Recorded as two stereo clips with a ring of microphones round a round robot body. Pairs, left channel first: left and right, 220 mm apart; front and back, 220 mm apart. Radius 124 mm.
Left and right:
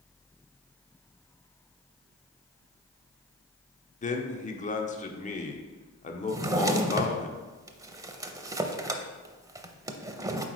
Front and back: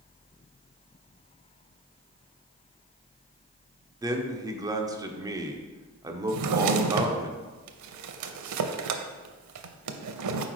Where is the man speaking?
115° left, 0.9 m.